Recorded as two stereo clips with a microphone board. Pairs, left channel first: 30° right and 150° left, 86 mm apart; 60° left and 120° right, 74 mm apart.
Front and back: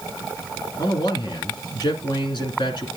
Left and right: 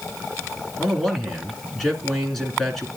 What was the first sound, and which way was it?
A man speaking, 30° right.